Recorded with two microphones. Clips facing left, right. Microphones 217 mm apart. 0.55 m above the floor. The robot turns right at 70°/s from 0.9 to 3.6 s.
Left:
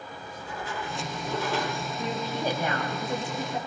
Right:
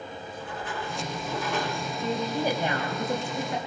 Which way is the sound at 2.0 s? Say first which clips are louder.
Right 3 dB; 160° left.